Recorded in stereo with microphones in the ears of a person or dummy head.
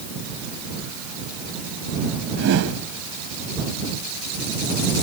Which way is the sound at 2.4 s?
65° right (ahead or behind).